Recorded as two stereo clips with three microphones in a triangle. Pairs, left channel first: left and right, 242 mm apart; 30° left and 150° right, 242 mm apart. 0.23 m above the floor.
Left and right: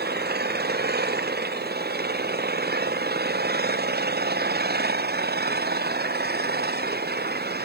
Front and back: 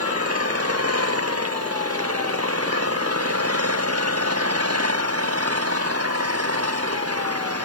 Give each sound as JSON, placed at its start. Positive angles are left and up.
{"t": 0.0, "sound": "an engine running", "azimuth_deg": -140}